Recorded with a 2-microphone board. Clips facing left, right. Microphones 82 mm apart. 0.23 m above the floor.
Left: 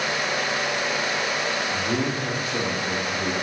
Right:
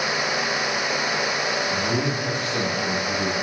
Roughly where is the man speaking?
Centre.